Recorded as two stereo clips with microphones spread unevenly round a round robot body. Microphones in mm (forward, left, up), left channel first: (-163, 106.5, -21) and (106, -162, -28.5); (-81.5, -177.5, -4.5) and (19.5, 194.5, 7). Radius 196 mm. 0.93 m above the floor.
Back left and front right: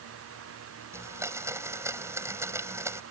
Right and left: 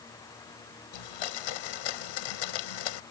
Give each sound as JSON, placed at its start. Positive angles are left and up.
{"t": 0.9, "sound": "a blender", "azimuth_deg": -130}